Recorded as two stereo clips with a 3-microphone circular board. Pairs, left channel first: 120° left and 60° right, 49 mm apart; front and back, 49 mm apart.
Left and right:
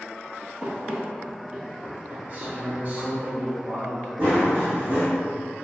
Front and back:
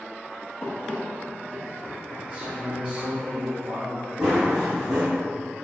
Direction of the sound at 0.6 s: 10° right.